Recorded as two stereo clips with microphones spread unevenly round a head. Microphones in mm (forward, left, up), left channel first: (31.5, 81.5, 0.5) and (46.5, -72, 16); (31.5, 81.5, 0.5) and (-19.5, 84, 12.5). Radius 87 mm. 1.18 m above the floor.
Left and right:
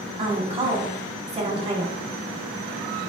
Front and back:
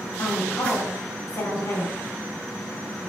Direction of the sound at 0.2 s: 30° right.